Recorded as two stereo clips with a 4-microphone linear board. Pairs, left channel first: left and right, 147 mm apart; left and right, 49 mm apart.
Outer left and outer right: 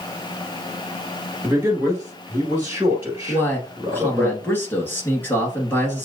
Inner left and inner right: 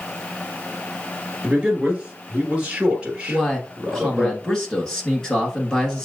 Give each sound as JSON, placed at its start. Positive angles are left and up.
{"t": 1.4, "sound": "a man speaking", "side_deg": -15, "distance_m": 1.6}
{"t": 3.3, "sound": "a man speaking", "side_deg": 15, "distance_m": 1.4}